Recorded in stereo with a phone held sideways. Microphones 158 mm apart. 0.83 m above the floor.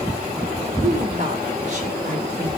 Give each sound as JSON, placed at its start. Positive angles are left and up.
{"t": 0.8, "sound": "a woman speaking", "side_deg": -40, "distance_m": 3.0}